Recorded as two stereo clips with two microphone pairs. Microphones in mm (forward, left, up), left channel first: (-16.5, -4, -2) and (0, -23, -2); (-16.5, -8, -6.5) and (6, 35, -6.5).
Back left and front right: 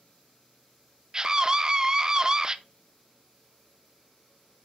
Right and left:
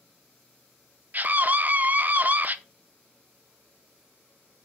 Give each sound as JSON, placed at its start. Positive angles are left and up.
{"t": 1.1, "sound": "a scream", "azimuth_deg": 10, "distance_m": 0.6}